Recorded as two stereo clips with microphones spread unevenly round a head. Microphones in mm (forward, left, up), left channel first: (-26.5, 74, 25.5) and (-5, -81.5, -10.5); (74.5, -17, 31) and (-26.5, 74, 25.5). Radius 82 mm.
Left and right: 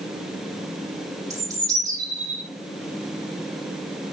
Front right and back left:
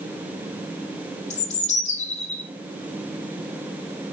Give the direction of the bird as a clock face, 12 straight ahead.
12 o'clock.